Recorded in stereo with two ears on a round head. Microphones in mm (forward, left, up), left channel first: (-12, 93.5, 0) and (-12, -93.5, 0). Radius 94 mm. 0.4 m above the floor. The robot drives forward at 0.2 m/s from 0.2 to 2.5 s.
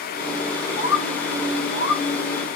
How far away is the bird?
About 1.1 m.